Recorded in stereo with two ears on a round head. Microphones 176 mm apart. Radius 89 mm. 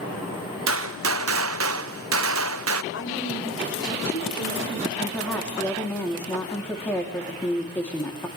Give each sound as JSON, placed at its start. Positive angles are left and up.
{"t": 0.7, "sound": "a gunshot", "side_deg": -75, "distance_m": 0.6}
{"t": 2.9, "sound": "a woman speaking", "side_deg": 75, "distance_m": 7.0}
{"t": 5.0, "sound": "a woman speaking", "side_deg": 10, "distance_m": 3.0}